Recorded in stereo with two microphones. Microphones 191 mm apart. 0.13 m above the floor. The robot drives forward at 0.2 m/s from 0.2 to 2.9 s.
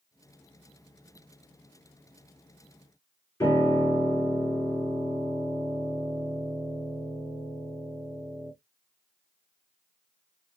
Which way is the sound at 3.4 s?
15° left (ahead or behind).